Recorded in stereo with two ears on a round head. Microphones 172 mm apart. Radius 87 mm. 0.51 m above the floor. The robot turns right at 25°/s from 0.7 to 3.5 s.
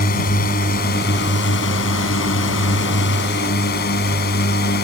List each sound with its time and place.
0.0 s a drone: 50° left; by 4.8 s 120° left